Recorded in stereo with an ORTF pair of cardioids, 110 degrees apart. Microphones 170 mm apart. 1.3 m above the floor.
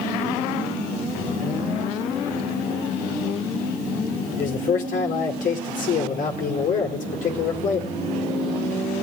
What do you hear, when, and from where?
4.4 s a man speaking: 50° left, 4.5 m